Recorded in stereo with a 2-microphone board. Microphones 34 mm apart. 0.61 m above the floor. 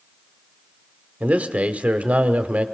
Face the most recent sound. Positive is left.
turn(degrees=-45)  # may be behind; listen again after turning